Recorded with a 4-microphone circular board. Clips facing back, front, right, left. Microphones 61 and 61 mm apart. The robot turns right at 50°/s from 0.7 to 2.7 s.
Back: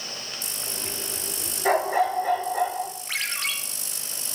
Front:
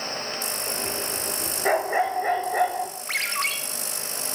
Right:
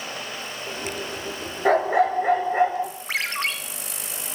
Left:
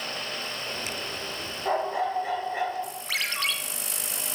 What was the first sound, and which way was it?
A dog barking, 80° right.